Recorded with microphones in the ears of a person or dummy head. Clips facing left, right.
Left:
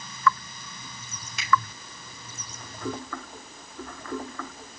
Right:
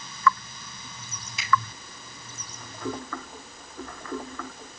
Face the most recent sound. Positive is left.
turn(degrees=60)  # may be behind; listen again after turning